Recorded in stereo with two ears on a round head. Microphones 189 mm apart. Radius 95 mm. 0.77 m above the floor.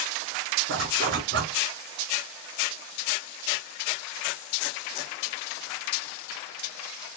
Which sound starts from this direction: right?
A zipper, at 0.7 s.